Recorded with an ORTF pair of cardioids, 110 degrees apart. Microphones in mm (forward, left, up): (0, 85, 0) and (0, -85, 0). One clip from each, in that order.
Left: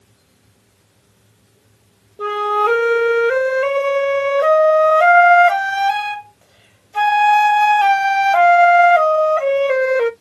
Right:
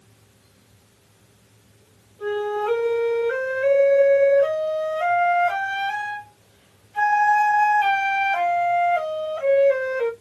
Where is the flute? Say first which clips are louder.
Left 8 dB; 60° left, 1.1 m.